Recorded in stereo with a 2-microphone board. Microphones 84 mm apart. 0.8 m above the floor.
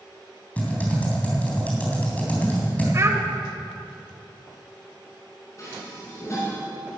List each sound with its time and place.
0.6 s typing on a keyboard: 15° left (ahead or behind), 3.5 m
2.9 s a child speaking: 35° right (ahead or behind), 1.7 m
5.6 s dishes clattering: 40° left (ahead or behind), 6 m